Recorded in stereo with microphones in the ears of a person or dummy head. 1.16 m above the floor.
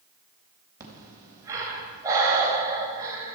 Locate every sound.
0.8 s breathing: 20° right (ahead or behind), 4 m